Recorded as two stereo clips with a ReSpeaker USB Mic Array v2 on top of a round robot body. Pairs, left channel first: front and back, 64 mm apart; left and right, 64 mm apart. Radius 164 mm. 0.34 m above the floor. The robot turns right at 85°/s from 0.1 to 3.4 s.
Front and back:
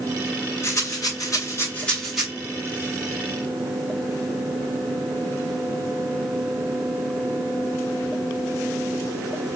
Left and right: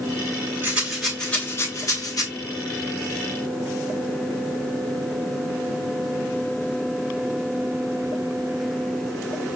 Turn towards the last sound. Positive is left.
turn(degrees=-160)